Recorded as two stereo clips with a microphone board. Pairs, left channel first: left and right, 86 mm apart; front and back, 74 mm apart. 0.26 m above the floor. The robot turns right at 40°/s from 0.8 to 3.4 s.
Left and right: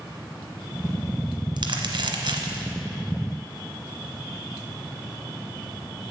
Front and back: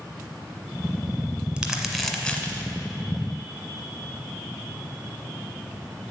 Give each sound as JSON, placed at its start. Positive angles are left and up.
{"t": 1.6, "sound": "crumpling", "azimuth_deg": -100, "distance_m": 1.0}